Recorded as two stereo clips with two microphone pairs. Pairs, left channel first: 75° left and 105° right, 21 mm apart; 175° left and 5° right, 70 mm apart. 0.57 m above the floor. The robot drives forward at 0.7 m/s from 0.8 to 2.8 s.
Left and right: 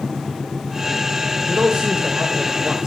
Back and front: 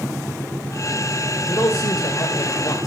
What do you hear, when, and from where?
1.4 s a man speaking: 145° right, 1.5 m; by 2.9 s 160° right, 2.5 m